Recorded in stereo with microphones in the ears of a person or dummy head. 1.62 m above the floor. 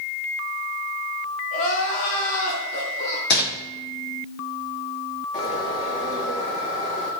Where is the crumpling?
55° left (ahead or behind), 2.5 m.